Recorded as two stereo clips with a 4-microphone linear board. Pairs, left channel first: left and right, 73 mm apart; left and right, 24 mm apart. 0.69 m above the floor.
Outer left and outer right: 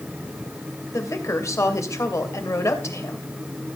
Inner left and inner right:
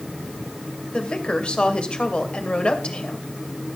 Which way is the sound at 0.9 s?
40° left (ahead or behind).